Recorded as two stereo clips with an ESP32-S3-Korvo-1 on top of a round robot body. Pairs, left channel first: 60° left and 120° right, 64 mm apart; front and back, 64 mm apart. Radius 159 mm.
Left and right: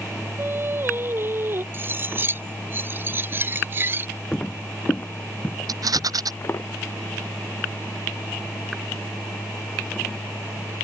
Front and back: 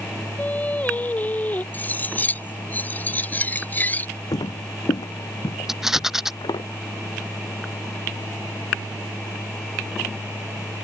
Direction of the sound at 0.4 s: 65° right.